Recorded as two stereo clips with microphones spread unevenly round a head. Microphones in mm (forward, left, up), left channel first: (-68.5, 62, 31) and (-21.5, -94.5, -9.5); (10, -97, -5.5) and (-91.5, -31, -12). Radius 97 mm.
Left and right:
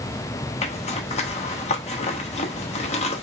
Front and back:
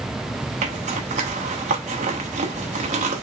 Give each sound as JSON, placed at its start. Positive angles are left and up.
{"t": 0.6, "sound": "a zipper", "azimuth_deg": 135, "distance_m": 0.9}